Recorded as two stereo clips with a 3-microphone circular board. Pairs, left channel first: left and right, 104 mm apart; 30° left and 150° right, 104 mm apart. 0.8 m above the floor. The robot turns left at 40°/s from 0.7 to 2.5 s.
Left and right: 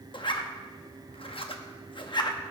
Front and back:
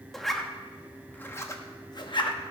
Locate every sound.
0.1 s a zipper: 120° left, 0.9 m; by 2.4 s 50° left, 0.9 m